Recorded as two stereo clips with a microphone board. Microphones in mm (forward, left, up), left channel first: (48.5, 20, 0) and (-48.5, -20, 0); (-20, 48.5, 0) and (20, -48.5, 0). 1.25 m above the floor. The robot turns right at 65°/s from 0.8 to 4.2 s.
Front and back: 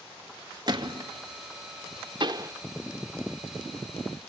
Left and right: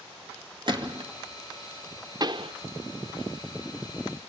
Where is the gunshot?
110° right, 1.9 m; by 1.1 s 90° right, 1.9 m.